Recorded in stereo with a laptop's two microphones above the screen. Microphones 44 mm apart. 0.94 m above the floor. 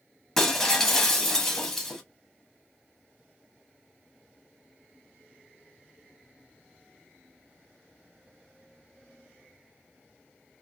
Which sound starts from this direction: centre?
Breaking glass, at 0.4 s.